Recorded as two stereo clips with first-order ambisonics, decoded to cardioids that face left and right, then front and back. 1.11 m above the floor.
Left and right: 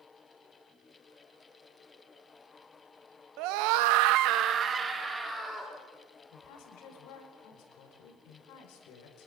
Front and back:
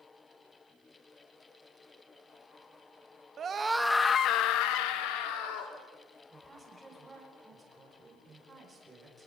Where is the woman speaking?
105° left, 5 m.